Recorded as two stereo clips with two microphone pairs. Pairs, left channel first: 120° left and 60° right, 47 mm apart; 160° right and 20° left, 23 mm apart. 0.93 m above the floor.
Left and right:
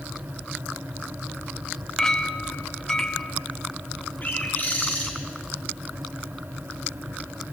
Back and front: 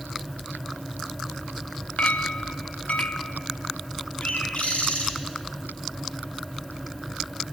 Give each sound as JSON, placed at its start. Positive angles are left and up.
{"t": 2.0, "sound": "a clink", "azimuth_deg": -160, "distance_m": 0.5}
{"t": 4.2, "sound": "a bird", "azimuth_deg": 175, "distance_m": 3.0}